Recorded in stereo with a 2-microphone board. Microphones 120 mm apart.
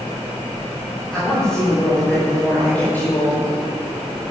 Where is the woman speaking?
5° left (ahead or behind), 6.5 m; by 3.5 s 20° left (ahead or behind), 4.5 m.